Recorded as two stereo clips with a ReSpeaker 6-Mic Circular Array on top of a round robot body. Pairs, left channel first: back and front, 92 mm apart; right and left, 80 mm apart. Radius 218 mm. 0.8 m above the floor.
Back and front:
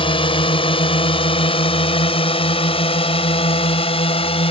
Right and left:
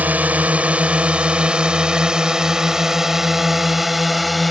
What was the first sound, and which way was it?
A drone, 160° left.